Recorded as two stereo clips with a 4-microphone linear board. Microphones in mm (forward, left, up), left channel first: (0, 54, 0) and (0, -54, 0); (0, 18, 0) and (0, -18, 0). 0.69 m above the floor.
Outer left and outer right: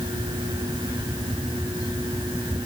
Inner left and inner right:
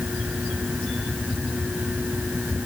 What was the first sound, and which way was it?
Only background noise.